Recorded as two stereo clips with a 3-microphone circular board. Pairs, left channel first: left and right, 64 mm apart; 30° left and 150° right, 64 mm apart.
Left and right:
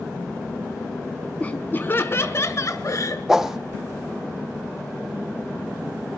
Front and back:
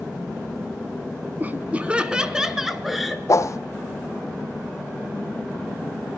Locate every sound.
1.4 s laughter: 155° left, 2 m; by 3.2 s 120° left, 3.5 m
3.3 s a whoosh: 5° right, 1.6 m